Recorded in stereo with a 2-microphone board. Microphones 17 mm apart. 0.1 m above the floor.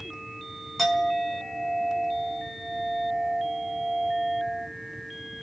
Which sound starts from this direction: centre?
A clink, at 0.8 s.